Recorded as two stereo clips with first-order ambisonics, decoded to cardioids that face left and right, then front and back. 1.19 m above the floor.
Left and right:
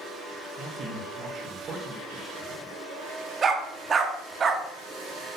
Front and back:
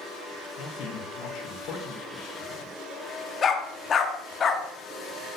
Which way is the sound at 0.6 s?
35° right.